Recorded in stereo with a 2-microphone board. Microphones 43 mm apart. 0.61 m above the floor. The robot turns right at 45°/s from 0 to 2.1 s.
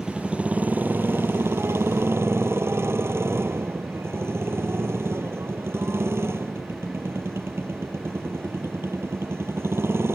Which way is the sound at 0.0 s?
170° right.